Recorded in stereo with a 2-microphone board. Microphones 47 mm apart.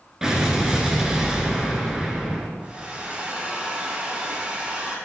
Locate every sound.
0.2 s an explosion: 15° right (ahead or behind), 1.6 m
2.6 s a hair dryer: 25° right (ahead or behind), 1.9 m